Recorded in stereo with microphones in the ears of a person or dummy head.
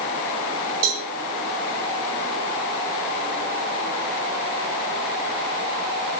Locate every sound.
0.8 s a cowbell: 85° right, 7 m